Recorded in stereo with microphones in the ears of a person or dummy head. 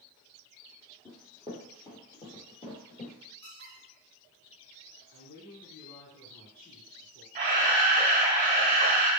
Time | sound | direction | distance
1.1 | running footsteps | 10° left (ahead or behind) | 1.7 m
3.4 | a squeak | 35° left (ahead or behind) | 1.6 m
5.1 | a woman speaking | 60° left (ahead or behind) | 1.7 m
7.3 | a camera shutter | 30° right (ahead or behind) | 1.3 m